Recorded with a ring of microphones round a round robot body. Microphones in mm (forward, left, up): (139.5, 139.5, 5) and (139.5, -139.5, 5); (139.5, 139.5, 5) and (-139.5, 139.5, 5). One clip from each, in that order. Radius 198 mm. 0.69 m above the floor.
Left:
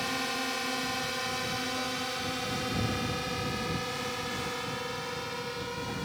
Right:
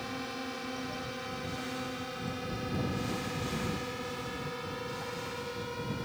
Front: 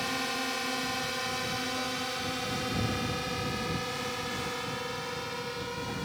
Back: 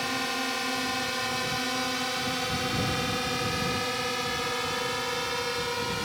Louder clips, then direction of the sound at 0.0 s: Left 7 dB, back 3 dB; 115° left.